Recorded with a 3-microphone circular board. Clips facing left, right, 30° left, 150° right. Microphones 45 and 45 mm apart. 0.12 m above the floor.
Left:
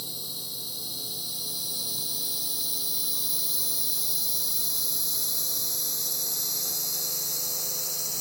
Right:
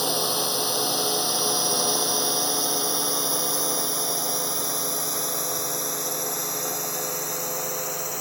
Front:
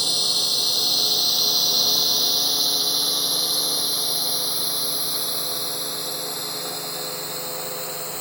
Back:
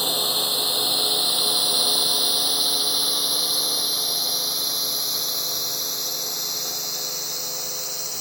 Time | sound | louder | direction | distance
0.0 | a drone | right 15 dB, back 1 dB | 85° right | ?